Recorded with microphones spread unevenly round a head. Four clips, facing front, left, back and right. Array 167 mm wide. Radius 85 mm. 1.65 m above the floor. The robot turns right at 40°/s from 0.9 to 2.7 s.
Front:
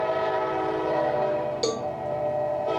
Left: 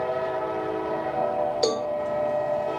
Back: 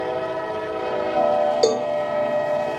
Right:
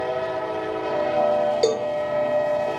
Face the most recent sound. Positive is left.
turn(degrees=-110)